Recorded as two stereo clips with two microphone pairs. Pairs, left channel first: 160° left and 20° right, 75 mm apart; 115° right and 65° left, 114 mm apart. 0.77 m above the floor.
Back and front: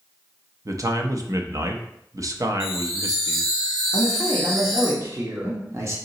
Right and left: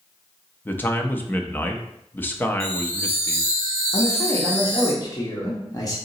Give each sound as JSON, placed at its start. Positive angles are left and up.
{"t": 0.7, "sound": "a man speaking", "azimuth_deg": -45, "distance_m": 0.6}
{"t": 2.6, "sound": "a chime", "azimuth_deg": -100, "distance_m": 0.9}
{"t": 3.9, "sound": "a man speaking", "azimuth_deg": -65, "distance_m": 1.0}